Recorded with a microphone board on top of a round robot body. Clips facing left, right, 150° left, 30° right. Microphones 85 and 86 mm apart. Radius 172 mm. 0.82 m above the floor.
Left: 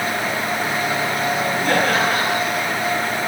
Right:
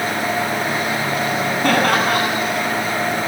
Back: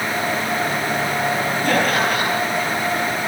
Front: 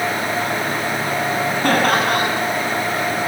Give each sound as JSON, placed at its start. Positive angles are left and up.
{"t": 1.6, "sound": "laughter", "azimuth_deg": -60, "distance_m": 9.0}